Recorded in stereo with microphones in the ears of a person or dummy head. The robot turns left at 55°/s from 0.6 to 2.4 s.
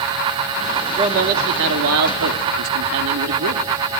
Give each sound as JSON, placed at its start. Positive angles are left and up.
{"t": 1.0, "sound": "a man speaking", "azimuth_deg": -30, "distance_m": 2.5}